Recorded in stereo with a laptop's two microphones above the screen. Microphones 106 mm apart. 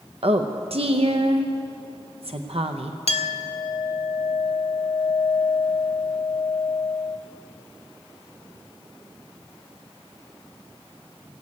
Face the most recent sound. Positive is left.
turn(degrees=75)  # may be behind; listen again after turning